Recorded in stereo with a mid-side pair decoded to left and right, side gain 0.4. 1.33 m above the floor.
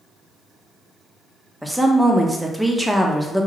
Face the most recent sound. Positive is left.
turn(degrees=-5)